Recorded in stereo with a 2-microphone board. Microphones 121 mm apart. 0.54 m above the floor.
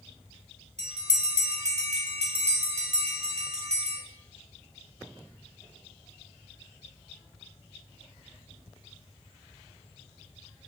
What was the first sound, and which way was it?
A bell, 70° right (ahead or behind).